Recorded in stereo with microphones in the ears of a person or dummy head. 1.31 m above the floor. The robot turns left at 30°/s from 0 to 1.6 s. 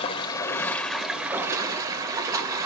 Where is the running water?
35° left, 1.1 m; by 2.7 s 15° right, 1.1 m.